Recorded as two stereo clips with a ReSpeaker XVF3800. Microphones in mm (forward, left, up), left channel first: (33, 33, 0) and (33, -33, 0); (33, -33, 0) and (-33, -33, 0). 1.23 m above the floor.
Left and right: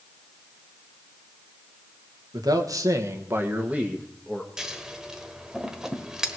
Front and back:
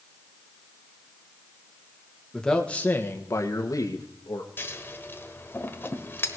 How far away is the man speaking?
About 1.5 m.